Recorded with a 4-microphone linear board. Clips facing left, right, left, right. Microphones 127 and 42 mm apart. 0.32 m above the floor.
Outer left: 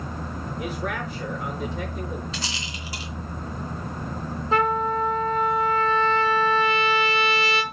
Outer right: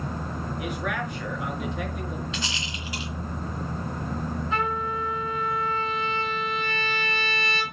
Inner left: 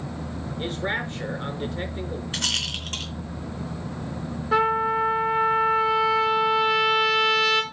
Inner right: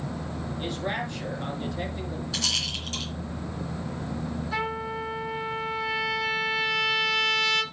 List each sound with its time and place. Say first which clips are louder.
0.6 s a man speaking: outer left 1 dB, inner left 3 dB; 35° left (ahead or behind), 5 m
2.3 s a rattle: even, inner left 2 dB; 40° left (ahead or behind), 3.5 m
4.5 s a trumpet: outer left 8 dB, inner left 11 dB; 40° left (ahead or behind), 3.5 m